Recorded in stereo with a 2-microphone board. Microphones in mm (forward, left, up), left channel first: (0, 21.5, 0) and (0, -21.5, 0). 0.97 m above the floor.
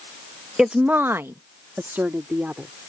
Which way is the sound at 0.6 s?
15° right (ahead or behind).